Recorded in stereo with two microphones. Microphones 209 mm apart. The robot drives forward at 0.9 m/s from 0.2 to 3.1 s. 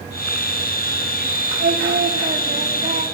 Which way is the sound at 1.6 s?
55° right (ahead or behind).